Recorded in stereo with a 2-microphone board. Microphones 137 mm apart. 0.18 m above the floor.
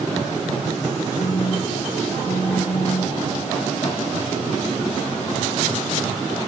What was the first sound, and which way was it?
A phone buzzing, 45° left (ahead or behind).